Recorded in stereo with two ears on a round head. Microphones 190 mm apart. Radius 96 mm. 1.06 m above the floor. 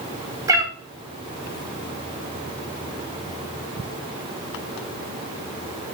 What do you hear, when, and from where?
0.5 s a cat meowing: 15° right (ahead or behind), 0.7 m